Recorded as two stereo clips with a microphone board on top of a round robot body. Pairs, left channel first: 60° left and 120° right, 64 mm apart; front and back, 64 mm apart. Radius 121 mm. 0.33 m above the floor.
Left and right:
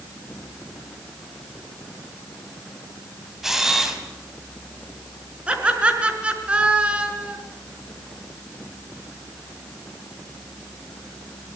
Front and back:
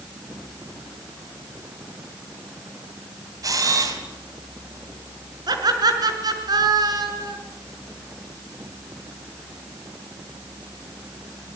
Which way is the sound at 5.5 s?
170° left.